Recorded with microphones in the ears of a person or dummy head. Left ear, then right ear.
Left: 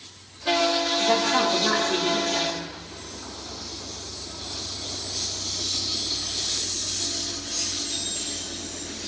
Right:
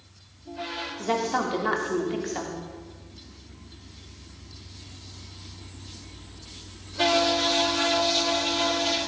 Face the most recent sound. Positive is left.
turn(degrees=-10)  # may be behind; listen again after turning